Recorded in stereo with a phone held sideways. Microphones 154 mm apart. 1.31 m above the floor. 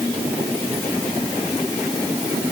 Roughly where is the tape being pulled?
No tape being pulled in this recording.